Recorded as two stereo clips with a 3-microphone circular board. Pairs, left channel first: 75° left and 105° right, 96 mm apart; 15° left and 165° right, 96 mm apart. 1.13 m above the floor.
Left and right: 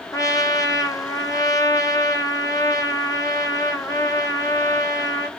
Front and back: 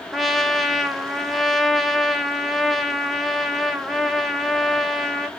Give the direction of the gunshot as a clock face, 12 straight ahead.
I don't hear a gunshot.